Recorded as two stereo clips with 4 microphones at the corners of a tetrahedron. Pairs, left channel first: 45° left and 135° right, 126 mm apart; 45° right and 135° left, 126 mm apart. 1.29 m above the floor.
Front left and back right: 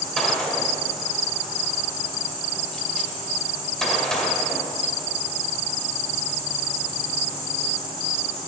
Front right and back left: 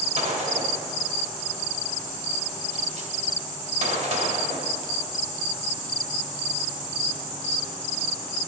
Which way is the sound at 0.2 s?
130° left.